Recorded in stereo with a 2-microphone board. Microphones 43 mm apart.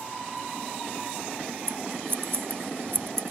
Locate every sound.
1.7 s scissors: 65° right (ahead or behind)